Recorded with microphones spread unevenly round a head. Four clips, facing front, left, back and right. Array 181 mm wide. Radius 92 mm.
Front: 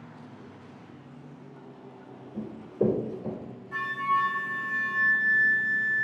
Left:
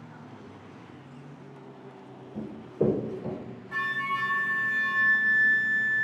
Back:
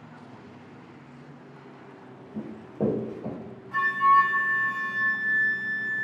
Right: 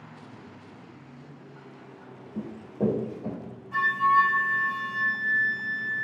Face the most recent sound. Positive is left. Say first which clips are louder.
# right 9 dB, back 7 dB
turn(degrees=130)